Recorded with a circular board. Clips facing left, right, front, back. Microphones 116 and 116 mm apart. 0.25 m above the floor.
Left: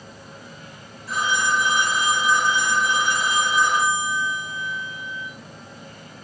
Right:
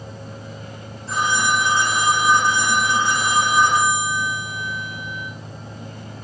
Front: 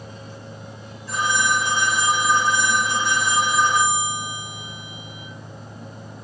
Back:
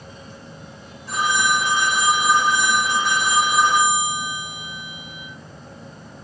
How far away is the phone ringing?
About 8.5 m.